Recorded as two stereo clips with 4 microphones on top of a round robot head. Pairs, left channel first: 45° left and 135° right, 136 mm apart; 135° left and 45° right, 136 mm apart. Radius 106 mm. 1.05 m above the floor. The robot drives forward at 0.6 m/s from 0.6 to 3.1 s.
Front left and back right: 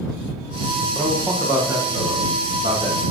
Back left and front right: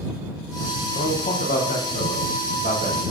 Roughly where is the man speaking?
Behind left.